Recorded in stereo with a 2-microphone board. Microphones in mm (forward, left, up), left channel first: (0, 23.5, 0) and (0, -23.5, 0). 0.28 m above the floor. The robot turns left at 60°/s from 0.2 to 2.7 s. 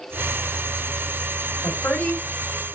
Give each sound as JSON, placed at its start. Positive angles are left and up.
{"t": 1.6, "sound": "a woman speaking", "azimuth_deg": 145, "distance_m": 1.8}